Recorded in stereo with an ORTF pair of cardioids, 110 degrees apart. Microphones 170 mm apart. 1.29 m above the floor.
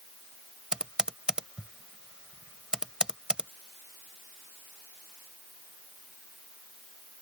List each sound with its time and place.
0.7 s typing on a keyboard: 5° right